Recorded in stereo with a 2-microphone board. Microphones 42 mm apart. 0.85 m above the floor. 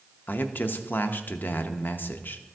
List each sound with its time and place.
0.3 s a man speaking: 50° left (ahead or behind), 0.6 m